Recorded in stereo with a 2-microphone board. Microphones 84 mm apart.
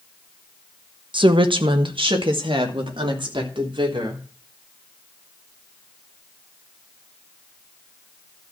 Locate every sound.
1.1 s a woman speaking: 70° right (ahead or behind), 1.0 m; by 4.2 s 80° right, 3.5 m